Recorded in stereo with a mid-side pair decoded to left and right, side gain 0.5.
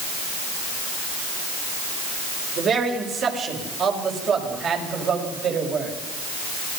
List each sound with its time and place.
2.6 s a man speaking: 50° right, 6 m; by 6.0 s 55° right, 8 m